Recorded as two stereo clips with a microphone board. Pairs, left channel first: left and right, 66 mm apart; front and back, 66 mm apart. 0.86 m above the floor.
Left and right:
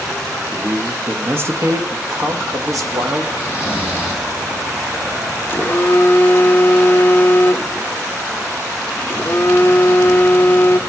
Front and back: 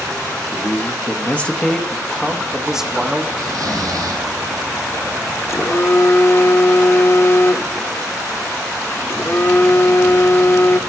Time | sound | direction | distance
0.5 | a man speaking | 20° right | 1.1 m
3.4 | snoring | 160° right | 5 m
5.5 | a phone buzzing | 40° left | 0.6 m